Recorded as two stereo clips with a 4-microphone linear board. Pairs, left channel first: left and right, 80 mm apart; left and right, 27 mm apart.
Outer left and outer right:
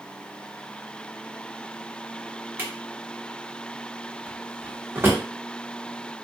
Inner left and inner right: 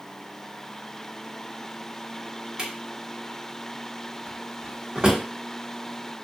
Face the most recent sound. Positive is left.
turn(degrees=-25)  # may be behind; listen again after turning